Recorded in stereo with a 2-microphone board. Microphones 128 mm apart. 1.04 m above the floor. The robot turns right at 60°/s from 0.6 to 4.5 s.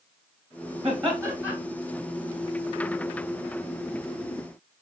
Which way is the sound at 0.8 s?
50° right.